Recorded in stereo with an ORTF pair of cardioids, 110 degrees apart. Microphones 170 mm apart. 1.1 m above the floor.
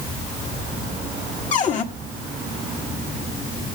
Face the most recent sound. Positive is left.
turn(degrees=50)